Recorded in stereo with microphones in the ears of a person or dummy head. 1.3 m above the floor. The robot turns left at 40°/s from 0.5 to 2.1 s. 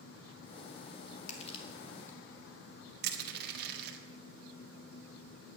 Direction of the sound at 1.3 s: 45° left (ahead or behind).